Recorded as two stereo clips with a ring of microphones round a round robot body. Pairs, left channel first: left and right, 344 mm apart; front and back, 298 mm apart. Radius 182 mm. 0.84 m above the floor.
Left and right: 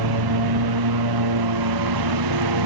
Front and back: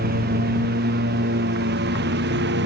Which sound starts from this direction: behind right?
A lawn mower, at 0.0 s.